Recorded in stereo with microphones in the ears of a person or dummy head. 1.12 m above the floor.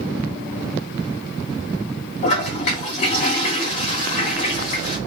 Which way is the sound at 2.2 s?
40° left (ahead or behind).